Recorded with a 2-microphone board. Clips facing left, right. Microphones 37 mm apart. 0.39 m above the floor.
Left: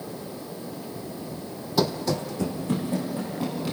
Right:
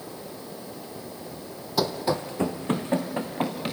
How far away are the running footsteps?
About 1.0 m.